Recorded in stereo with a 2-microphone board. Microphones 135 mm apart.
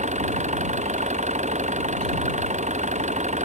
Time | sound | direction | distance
0.0 | an engine running | 60° right (ahead or behind) | ?